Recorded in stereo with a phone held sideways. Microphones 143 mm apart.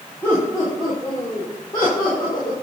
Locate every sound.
0.2 s laughter: 15° left (ahead or behind), 4 m; by 2.5 s 30° left (ahead or behind), 5 m